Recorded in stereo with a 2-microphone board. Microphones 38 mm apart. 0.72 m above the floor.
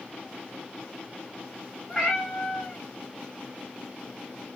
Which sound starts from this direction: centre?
A cat meowing, at 1.9 s.